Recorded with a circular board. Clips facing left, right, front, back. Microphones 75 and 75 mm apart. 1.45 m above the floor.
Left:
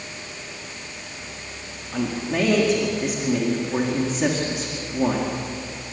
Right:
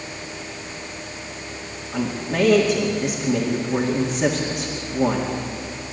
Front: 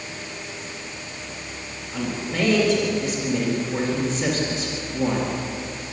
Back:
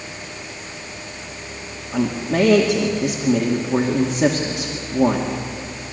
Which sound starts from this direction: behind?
A man speaking, at 1.9 s.